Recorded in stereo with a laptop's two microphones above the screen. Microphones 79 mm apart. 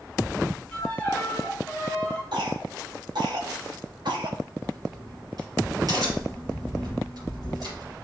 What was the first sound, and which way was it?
A violin, 15° left (ahead or behind).